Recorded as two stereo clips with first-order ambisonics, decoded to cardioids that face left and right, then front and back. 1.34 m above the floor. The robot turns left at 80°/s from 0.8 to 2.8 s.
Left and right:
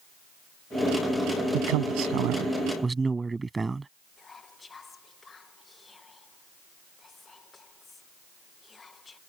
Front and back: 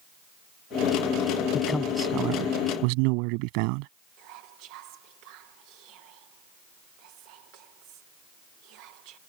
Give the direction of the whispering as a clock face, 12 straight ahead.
7 o'clock.